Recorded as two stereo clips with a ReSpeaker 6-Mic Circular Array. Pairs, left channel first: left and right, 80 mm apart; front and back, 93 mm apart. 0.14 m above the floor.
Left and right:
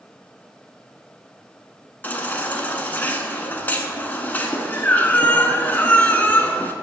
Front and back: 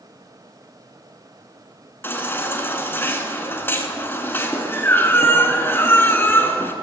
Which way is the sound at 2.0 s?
45° left.